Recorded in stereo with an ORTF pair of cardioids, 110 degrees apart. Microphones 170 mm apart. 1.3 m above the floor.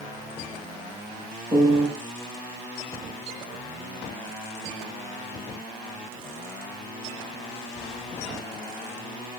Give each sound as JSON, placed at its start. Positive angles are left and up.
{"t": 1.5, "sound": "a piano", "azimuth_deg": -35, "distance_m": 4.0}